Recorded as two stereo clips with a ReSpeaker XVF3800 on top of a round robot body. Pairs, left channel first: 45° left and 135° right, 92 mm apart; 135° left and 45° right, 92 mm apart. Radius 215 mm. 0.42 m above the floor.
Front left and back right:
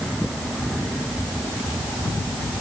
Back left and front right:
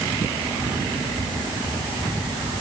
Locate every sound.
Only background noise.